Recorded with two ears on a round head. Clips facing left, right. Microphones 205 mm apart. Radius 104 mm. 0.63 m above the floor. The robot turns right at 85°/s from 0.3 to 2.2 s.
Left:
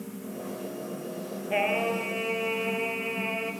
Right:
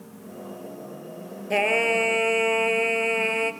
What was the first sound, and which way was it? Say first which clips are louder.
Singing: right 5 dB; 125° right.